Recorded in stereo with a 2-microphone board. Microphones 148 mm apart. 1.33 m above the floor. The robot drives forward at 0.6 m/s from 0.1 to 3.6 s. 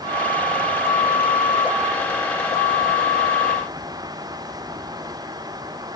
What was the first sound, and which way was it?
Only background noise.